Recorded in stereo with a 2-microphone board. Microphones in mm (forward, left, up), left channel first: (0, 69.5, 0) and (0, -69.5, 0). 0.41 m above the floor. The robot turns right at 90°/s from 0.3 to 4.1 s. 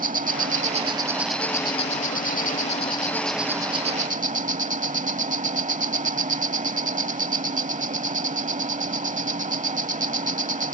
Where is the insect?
90° right; by 10.7 s 110° right.